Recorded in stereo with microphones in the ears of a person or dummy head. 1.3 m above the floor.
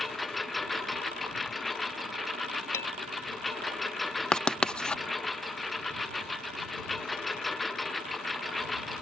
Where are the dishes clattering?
20° left (ahead or behind).